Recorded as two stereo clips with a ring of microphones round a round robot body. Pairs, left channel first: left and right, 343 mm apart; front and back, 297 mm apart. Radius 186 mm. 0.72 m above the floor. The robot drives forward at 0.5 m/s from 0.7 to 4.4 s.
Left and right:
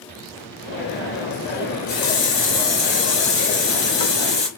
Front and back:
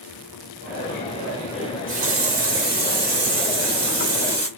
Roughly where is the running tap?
Behind left.